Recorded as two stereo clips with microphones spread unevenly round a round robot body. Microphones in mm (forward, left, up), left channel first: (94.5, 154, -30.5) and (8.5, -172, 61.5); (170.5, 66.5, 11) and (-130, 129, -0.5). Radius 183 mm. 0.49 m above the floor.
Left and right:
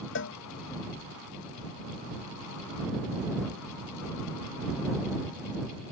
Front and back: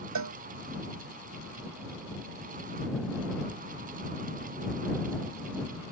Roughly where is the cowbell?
Behind left.